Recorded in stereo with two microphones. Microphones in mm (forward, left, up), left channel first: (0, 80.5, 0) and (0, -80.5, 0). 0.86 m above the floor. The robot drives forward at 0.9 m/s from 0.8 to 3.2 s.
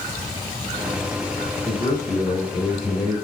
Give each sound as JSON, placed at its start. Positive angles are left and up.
{"t": 1.6, "sound": "a man speaking", "side_deg": 20, "distance_m": 2.5}